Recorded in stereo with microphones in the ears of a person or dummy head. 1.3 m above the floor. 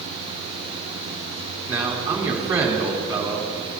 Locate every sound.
1.7 s a man speaking: 15° right (ahead or behind), 2.5 m